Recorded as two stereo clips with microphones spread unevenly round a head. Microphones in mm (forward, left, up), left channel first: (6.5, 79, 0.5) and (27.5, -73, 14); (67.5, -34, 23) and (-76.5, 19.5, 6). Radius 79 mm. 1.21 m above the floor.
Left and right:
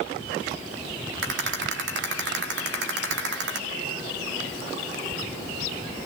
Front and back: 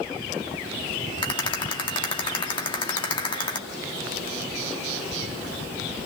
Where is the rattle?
80° right, 3.5 m.